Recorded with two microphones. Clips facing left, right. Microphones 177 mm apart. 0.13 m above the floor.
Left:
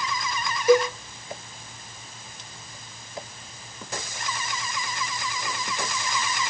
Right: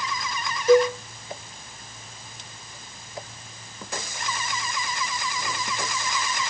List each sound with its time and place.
0.7 s a cowbell: 10° left (ahead or behind), 1.0 m